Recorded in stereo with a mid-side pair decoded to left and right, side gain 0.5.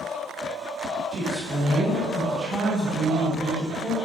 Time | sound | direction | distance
1.1 | a woman speaking | 25° right | 1.0 m